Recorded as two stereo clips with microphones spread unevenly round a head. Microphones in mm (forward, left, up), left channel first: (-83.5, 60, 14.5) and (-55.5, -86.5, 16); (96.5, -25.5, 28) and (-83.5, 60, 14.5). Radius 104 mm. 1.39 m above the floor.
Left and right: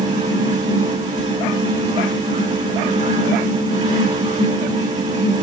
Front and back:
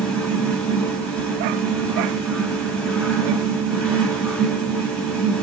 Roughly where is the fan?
Right.